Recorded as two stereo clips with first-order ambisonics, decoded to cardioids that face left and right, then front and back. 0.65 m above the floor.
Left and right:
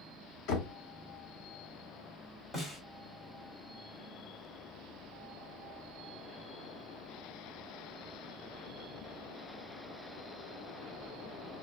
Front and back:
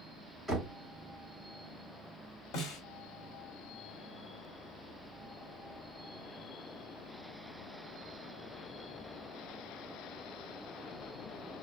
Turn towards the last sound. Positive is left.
turn(degrees=10)